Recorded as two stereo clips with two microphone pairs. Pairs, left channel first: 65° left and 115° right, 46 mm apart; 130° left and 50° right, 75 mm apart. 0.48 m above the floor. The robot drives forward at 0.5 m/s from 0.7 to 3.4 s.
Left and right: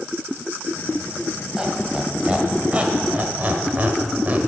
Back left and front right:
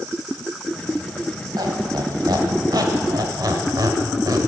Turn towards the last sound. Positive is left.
turn(degrees=-70)